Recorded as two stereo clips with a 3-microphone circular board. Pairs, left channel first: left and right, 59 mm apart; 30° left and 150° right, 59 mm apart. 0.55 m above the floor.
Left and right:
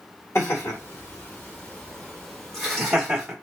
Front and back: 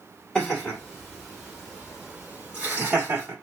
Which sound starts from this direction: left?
Laughter, at 0.3 s.